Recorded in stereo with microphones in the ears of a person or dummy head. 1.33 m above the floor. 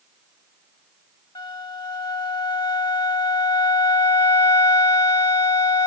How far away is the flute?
About 1.3 m.